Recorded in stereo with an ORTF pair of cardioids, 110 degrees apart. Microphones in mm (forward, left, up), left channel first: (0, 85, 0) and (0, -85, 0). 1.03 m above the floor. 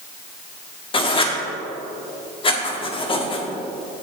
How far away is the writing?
About 1.4 m.